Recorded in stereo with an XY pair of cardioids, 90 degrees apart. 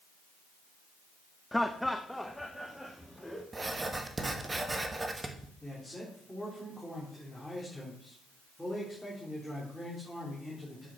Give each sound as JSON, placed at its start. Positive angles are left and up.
{"t": 1.5, "sound": "laughter", "azimuth_deg": 10, "distance_m": 0.5}
{"t": 3.5, "sound": "writing", "azimuth_deg": -30, "distance_m": 1.3}
{"t": 5.6, "sound": "a man speaking", "azimuth_deg": 5, "distance_m": 3.0}